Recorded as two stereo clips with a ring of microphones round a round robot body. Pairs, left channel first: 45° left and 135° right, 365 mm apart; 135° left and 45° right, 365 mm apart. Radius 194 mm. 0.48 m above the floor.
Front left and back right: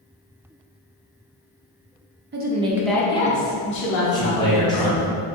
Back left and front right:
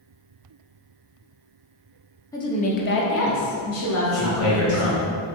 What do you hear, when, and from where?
2.3 s a woman speaking: 150° right, 0.8 m; by 5.1 s 85° left, 2.0 m
4.1 s a man speaking: 120° left, 1.8 m